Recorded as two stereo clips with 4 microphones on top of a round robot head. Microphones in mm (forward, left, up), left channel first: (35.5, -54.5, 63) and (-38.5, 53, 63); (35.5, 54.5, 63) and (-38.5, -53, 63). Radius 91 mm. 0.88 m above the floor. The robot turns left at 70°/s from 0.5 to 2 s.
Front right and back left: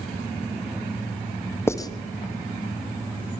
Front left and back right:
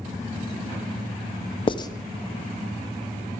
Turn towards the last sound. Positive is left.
turn(degrees=-10)